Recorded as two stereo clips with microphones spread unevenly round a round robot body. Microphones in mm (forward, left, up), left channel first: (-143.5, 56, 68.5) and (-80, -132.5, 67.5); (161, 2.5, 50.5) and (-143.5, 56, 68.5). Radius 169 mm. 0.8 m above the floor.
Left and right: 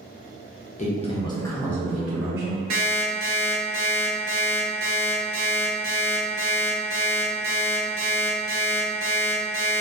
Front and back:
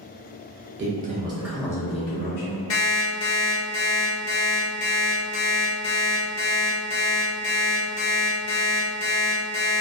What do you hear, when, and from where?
0.8 s a man speaking: 135° left, 0.7 m; by 2.6 s 5° right, 0.8 m
2.7 s an alarm clock: 55° right, 0.6 m